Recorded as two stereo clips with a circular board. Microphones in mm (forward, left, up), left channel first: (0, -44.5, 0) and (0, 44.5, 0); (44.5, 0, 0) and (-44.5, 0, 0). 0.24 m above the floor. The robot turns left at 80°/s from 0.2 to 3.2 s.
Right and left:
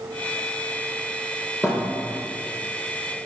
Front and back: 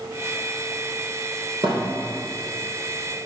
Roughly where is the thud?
Behind.